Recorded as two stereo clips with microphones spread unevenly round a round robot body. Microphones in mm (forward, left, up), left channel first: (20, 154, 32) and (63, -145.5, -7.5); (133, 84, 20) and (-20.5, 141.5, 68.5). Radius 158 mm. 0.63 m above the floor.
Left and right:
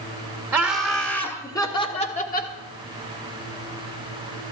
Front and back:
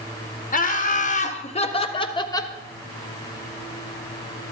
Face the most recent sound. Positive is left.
turn(degrees=40)